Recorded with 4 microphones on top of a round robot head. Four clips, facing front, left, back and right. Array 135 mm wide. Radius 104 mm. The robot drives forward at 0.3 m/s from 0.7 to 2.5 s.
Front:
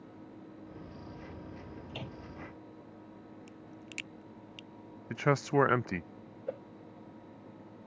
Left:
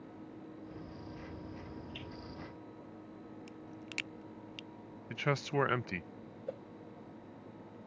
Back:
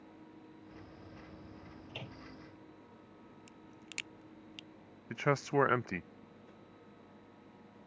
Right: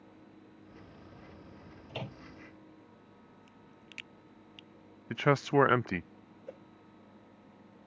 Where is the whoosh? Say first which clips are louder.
Left 5 dB, front 18 dB; 20° left.